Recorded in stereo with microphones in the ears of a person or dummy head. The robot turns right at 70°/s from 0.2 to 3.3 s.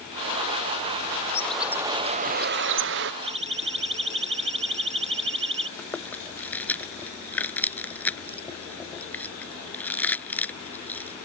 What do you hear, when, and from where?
1.3 s a bird: 165° left; by 3.1 s 70° right
3.2 s a siren: 30° right (ahead or behind); by 5.7 s 35° right (ahead or behind)
5.8 s chewing: 10° left (ahead or behind)